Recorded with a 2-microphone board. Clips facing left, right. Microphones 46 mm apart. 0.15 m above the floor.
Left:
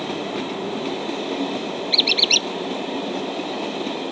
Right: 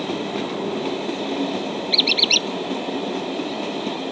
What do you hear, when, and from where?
1.9 s a squeak: centre (ahead or behind)